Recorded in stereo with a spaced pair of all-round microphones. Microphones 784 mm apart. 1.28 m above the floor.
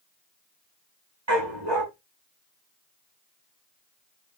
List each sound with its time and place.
1.3 s a dog barking: 35° right (ahead or behind), 2 m